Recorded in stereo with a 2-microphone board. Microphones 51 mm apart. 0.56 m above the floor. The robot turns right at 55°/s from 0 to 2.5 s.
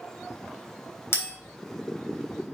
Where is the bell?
60° left (ahead or behind), 3.5 m; by 1.3 s 70° left (ahead or behind), 3.5 m.